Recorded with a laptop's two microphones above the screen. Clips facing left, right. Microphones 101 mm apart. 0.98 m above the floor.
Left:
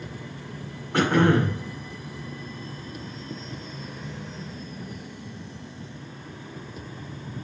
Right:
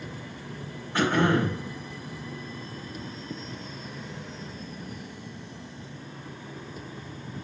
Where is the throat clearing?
75° left (ahead or behind), 2 m.